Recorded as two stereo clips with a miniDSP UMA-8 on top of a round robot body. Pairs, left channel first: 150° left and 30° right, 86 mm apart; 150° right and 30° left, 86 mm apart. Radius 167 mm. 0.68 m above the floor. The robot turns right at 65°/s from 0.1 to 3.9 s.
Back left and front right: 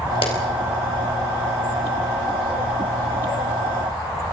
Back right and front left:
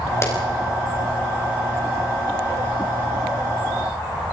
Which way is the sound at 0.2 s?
150° left.